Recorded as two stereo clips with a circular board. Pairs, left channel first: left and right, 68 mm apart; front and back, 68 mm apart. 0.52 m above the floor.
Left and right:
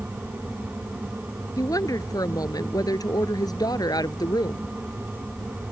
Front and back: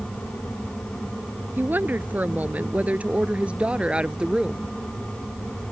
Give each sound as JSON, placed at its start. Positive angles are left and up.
{"t": 1.6, "sound": "a woman speaking", "azimuth_deg": 120}